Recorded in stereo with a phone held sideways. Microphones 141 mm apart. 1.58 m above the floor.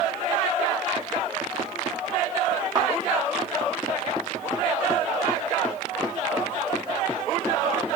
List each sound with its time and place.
2.8 s a thud: 30° right (ahead or behind), 1.1 m